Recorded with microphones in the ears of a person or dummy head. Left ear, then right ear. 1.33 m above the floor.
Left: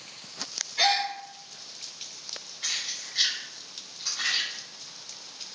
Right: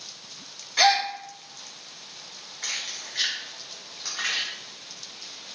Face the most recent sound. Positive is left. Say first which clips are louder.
# even
turn(degrees=-35)  # may be behind; listen again after turning